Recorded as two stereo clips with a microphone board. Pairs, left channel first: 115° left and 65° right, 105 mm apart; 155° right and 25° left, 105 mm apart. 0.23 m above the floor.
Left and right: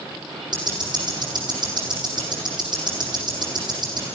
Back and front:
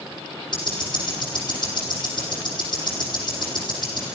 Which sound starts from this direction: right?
Ticking, at 0.5 s.